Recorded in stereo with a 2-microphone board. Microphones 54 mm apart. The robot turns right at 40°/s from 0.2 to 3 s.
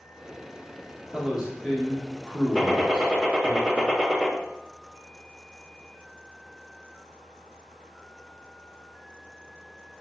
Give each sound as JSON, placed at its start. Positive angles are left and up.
{"t": 1.1, "sound": "a man speaking", "side_deg": -10, "distance_m": 0.9}
{"t": 2.5, "sound": "a gunshot", "side_deg": -10, "distance_m": 0.8}